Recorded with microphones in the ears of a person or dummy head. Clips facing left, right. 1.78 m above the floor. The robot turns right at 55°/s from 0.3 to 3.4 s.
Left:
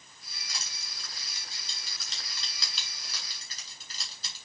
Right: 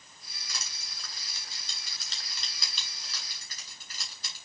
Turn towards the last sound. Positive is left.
turn(degrees=35)  # may be behind; listen again after turning